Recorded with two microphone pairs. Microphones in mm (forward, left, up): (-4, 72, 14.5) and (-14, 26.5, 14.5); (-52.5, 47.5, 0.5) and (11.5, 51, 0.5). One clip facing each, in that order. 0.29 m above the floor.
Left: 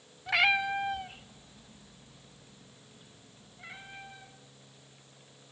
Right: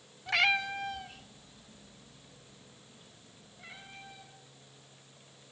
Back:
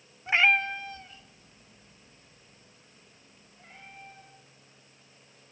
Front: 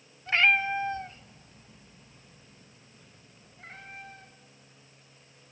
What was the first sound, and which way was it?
A cat meowing, 145° left.